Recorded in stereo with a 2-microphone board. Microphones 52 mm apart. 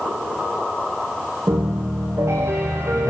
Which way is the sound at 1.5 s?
60° right (ahead or behind).